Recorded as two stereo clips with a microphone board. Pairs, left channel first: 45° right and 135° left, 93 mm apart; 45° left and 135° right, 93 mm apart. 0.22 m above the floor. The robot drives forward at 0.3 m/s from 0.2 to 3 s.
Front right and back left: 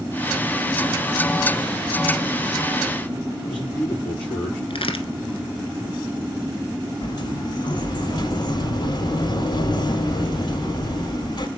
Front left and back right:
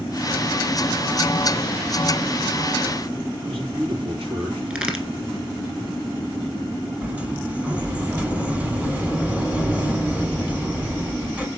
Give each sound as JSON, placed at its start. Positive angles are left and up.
{"t": 3.4, "sound": "a man speaking", "azimuth_deg": -120, "distance_m": 4.5}
{"t": 4.7, "sound": "a crack", "azimuth_deg": -60, "distance_m": 1.4}
{"t": 7.0, "sound": "a sliding door", "azimuth_deg": -60, "distance_m": 0.9}